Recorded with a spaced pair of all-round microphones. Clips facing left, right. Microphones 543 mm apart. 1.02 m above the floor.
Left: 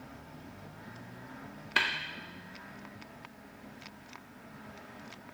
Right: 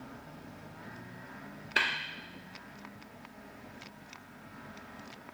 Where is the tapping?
25° left (ahead or behind), 0.6 m.